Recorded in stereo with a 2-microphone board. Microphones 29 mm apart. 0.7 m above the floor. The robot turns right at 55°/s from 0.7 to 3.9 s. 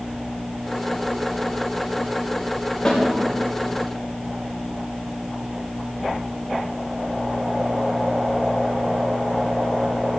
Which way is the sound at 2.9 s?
25° left (ahead or behind).